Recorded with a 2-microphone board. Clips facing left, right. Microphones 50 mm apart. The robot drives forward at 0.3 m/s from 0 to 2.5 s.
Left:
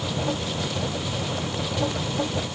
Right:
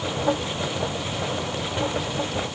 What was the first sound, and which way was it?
Only background noise.